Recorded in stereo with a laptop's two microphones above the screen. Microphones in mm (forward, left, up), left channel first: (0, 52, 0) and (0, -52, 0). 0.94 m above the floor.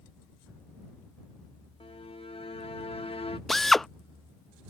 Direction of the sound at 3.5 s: 5° left (ahead or behind).